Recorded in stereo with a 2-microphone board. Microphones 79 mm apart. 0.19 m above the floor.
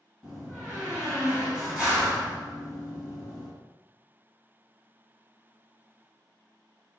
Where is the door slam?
20° right (ahead or behind), 1.5 m.